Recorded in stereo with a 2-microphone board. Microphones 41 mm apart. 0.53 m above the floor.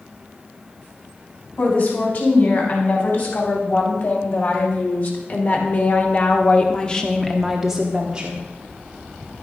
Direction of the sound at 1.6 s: 55° left (ahead or behind).